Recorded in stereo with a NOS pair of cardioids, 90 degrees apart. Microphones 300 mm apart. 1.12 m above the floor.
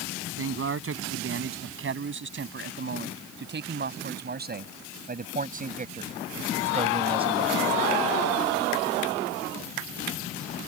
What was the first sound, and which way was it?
A man speaking, 45° right.